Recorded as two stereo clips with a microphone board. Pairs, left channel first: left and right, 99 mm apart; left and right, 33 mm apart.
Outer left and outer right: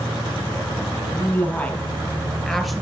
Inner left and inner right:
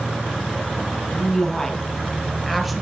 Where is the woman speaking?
20° left (ahead or behind), 3.5 m; by 2.8 s 5° right (ahead or behind), 2 m.